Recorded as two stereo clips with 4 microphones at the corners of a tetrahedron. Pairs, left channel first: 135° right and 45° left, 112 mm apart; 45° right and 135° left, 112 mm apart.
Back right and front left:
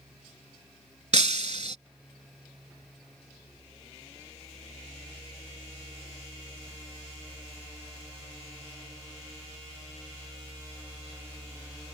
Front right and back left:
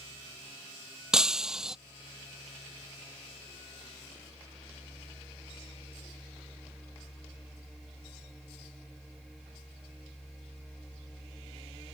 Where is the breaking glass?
50° left.